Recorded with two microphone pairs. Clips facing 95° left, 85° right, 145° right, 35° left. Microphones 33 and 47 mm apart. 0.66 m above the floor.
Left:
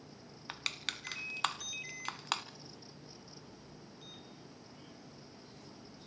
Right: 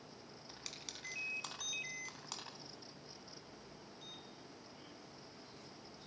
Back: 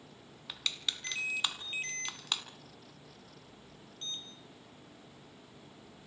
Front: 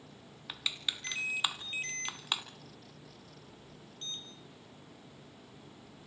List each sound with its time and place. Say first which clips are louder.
0.5 s crushing: left 13 dB, even; 110° left, 1.2 m